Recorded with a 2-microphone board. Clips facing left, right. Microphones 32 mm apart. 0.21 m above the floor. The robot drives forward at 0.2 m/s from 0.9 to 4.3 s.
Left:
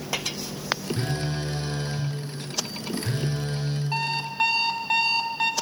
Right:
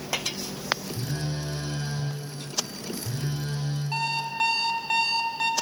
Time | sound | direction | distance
1.0 | a phone buzzing | 70° left (ahead or behind) | 2.5 m
3.9 | an alarm clock | 15° left (ahead or behind) | 0.6 m